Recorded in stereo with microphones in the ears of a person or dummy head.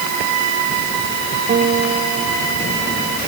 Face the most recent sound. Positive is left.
turn(degrees=-40)  # may be behind; listen again after turning